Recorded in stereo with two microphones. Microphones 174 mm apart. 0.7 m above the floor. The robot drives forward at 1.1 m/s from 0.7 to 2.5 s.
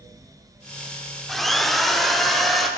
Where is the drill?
Centre (ahead or behind), 1.5 m.